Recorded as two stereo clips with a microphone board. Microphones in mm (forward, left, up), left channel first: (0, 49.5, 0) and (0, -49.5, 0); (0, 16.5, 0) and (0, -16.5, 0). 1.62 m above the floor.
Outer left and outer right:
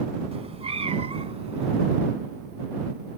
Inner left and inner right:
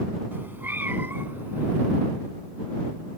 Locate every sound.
0.3 s a cat meowing: 80° right